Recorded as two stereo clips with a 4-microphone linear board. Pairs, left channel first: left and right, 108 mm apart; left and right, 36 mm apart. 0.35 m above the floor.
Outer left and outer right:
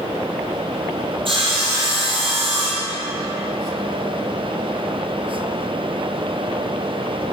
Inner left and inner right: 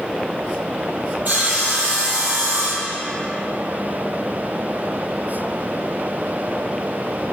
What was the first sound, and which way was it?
Sawing, 55° right (ahead or behind).